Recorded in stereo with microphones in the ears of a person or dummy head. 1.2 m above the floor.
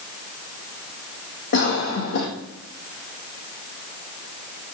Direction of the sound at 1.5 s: 55° left (ahead or behind).